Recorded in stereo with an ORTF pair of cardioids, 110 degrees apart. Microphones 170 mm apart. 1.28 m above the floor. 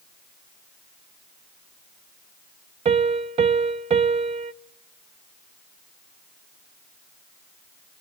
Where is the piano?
40° right, 0.7 m.